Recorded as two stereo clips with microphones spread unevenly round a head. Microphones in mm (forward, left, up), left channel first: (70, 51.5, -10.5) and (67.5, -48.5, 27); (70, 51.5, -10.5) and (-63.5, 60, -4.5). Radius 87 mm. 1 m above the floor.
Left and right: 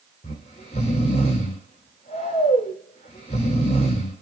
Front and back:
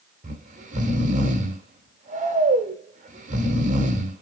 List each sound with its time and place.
0.2 s snoring: 145° left, 1.9 m